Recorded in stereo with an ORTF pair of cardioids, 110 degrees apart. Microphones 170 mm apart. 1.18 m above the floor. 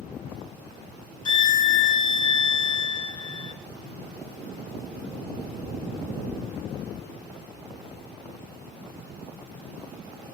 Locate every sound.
1.2 s a violin: 30° left, 0.6 m